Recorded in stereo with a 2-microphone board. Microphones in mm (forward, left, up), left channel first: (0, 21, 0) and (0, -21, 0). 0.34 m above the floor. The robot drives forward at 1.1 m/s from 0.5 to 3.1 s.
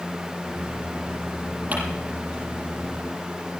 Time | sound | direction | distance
1.7 | crumpling | 40° right (ahead or behind) | 7.5 m